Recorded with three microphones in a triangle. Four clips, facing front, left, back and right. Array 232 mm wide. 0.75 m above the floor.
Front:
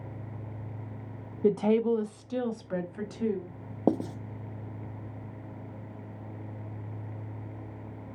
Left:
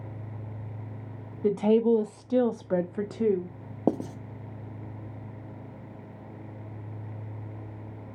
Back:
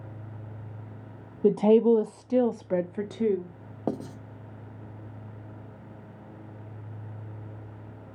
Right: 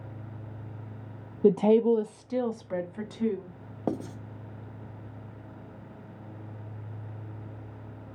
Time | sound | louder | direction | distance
1.4 | a woman speaking | right 2 dB, back 5 dB | 115° right | 0.5 m
3.9 | writing | left 5 dB, front 5 dB | 40° left | 0.8 m